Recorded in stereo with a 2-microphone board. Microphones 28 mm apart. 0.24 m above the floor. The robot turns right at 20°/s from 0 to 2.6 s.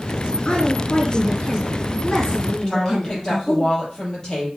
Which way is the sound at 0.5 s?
125° left.